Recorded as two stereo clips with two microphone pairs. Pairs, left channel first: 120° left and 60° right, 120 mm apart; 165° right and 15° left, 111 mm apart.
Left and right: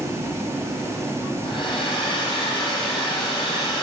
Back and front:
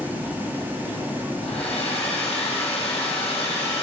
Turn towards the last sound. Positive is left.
turn(degrees=170)